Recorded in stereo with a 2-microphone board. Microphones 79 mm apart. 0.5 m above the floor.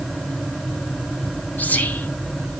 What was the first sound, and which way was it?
Whispering, 20° left (ahead or behind).